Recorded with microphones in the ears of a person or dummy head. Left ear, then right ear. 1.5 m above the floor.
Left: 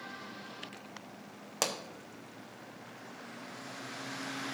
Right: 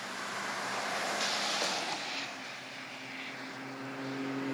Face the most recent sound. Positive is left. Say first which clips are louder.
# right 1 dB
turn(degrees=65)  # may be behind; listen again after turning